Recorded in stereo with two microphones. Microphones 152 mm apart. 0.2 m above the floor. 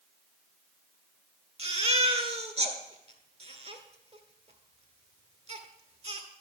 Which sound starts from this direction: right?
A baby crying, at 1.6 s.